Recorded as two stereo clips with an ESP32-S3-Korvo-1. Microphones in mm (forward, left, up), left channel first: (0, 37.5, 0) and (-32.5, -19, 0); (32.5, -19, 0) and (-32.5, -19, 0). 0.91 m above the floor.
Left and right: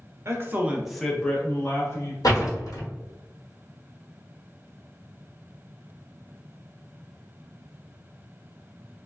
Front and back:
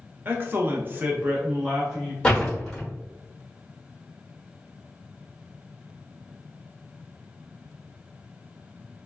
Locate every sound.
0.2 s a man speaking: 135° right, 0.7 m; by 2.1 s 100° left, 1.1 m
2.2 s a door slam: 80° left, 1.2 m